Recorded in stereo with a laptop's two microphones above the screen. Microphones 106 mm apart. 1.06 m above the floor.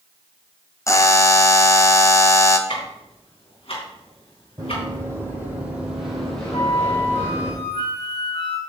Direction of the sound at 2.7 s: 65° left (ahead or behind).